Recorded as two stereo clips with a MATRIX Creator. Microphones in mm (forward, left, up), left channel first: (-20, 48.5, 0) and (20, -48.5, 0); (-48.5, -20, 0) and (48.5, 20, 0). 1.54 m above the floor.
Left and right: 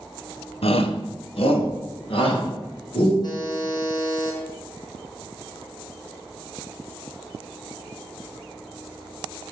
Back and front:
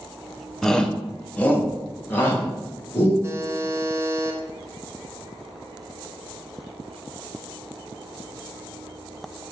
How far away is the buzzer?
About 1.3 m.